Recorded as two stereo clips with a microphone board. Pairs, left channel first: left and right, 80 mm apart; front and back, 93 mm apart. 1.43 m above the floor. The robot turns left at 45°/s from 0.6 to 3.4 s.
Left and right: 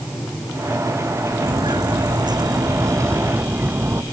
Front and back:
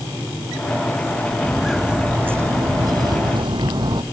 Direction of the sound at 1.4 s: 80° right.